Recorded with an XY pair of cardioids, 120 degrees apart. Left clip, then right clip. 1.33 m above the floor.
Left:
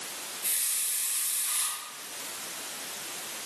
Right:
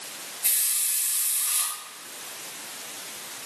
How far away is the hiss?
About 3.5 m.